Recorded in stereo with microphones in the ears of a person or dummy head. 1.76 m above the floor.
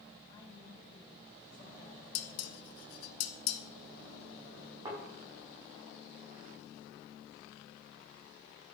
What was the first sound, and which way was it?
A woman speaking, 20° left (ahead or behind).